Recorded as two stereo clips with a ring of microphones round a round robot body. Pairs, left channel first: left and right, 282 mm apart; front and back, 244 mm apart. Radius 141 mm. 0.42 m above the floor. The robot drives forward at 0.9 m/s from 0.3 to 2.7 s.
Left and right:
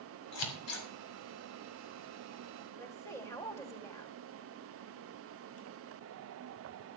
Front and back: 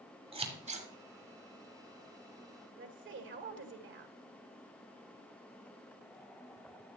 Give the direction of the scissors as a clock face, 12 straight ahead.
8 o'clock.